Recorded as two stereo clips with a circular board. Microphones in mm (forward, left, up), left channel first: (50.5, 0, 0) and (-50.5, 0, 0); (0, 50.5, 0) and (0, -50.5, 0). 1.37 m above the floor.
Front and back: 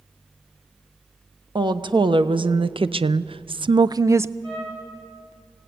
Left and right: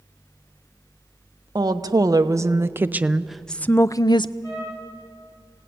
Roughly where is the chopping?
I don't hear chopping.